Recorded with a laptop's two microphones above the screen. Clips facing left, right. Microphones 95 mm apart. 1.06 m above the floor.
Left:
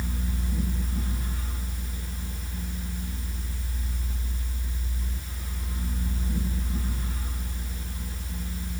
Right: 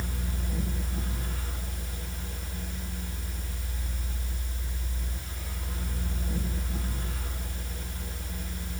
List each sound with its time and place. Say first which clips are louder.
0.0 s a fan: left 3 dB; 85° right, 4.5 m